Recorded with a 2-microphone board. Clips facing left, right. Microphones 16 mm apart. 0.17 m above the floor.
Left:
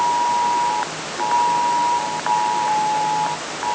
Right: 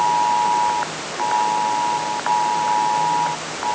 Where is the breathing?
I don't hear breathing.